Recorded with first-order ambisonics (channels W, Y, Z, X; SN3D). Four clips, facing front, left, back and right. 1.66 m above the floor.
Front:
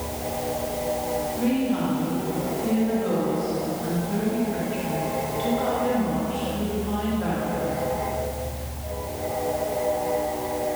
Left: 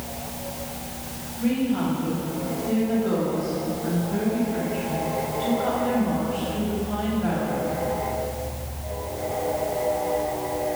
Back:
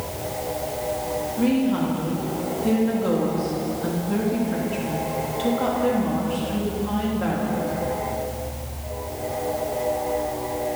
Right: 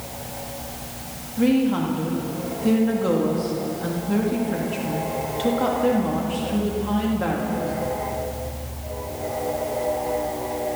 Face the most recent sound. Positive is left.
turn(degrees=-110)